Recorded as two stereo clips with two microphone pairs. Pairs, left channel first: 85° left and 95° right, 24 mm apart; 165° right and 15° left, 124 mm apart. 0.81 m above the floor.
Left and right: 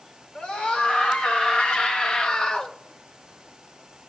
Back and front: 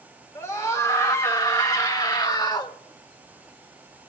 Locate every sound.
0.3 s a scream: 125° left, 2.5 m; by 2.8 s 140° left, 1.1 m